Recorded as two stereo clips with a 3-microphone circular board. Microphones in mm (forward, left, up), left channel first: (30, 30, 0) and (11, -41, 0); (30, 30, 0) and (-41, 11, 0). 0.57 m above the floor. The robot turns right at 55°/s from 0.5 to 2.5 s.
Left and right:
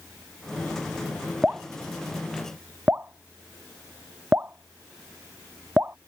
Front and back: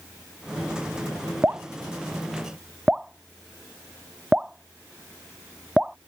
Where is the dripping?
160° right; by 6.0 s 100° right.